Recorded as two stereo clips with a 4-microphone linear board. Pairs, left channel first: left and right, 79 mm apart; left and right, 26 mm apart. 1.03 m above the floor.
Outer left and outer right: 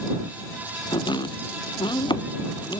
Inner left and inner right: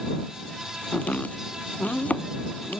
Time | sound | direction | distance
0.9 | chopping | 85° left | ?